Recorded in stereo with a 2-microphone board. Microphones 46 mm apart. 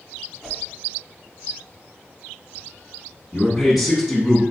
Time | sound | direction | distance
0.4 | a whoosh | 5° left (ahead or behind) | 1.1 m
3.3 | a man speaking | centre (ahead or behind) | 1.5 m